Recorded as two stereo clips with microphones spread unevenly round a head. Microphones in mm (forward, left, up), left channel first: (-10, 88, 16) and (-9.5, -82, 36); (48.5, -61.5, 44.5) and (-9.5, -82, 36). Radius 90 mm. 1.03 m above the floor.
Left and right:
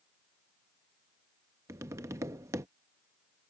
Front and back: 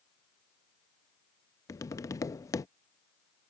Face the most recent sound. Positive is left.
turn(degrees=-15)